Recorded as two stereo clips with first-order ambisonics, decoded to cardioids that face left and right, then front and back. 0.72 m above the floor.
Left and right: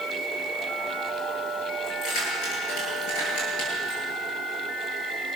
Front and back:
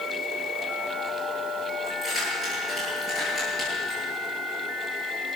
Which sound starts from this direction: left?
Keys jangling, at 1.9 s.